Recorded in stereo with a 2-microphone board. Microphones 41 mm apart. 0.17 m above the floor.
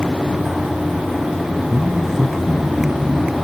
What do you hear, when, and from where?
1.7 s a man speaking: 5° right (ahead or behind), 1.2 m